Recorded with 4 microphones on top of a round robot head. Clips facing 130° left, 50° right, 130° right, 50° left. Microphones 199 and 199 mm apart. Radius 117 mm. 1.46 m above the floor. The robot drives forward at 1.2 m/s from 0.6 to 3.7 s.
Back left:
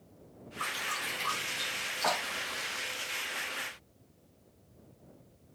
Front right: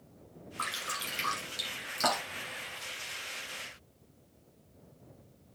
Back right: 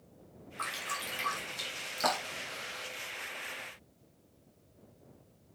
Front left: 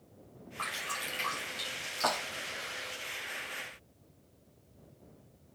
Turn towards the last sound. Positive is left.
turn(degrees=-80)